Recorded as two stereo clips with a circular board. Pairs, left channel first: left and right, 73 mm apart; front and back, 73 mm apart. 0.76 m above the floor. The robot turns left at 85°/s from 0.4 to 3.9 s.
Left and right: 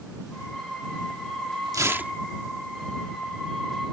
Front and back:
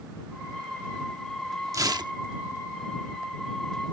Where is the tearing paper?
130° right; by 2.1 s 165° right.